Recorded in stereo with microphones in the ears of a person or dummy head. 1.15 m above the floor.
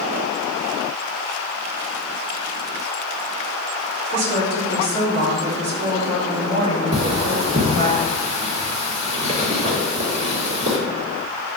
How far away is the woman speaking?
About 3 m.